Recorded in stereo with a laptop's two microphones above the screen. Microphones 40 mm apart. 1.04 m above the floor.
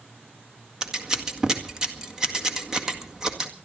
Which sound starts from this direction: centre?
Scissors, at 0.8 s.